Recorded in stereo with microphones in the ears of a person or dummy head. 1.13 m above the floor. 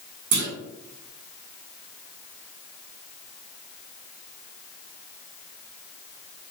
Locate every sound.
0.3 s a clunk: 65° right (ahead or behind), 1.0 m